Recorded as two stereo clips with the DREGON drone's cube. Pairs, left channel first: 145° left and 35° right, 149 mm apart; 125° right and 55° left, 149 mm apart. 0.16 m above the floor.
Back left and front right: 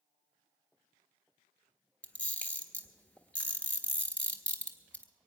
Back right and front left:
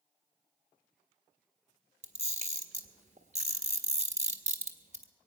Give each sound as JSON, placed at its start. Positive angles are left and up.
{"t": 2.0, "sound": "a camera shutter", "azimuth_deg": 70, "distance_m": 1.5}